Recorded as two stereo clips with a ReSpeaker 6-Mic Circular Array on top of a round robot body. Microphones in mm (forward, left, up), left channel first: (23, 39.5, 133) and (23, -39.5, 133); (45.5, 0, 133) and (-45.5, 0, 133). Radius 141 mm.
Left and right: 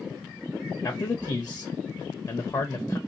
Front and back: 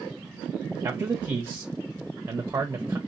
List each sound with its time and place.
0.8 s a man speaking: 125° left, 0.9 m